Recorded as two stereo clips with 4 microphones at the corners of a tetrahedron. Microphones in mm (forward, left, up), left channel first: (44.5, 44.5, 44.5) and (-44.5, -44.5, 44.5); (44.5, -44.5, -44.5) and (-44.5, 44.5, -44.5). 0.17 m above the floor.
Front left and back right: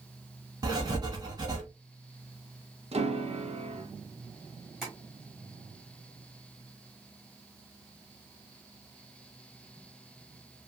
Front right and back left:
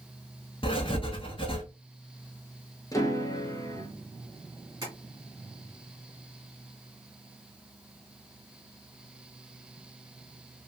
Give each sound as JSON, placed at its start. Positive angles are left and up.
{"t": 0.6, "sound": "writing", "azimuth_deg": -80, "distance_m": 1.1}
{"t": 2.9, "sound": "a piano", "azimuth_deg": -105, "distance_m": 0.8}
{"t": 4.8, "sound": "tapping", "azimuth_deg": 135, "distance_m": 1.8}